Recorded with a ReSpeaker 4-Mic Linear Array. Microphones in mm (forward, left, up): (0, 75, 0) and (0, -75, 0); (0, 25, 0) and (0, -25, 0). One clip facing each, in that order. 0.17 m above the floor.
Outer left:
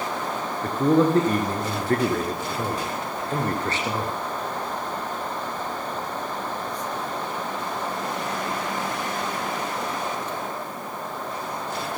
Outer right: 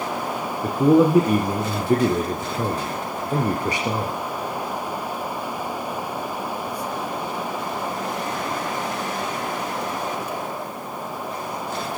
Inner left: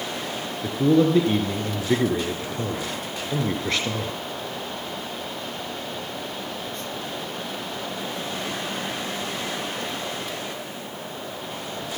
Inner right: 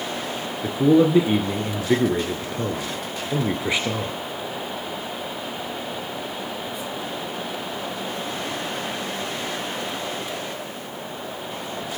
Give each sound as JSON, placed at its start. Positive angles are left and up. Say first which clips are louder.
{"t": 0.6, "sound": "a man speaking", "louder": "outer right 4 dB, inner right 2 dB", "side_deg": -10, "distance_m": 2.0}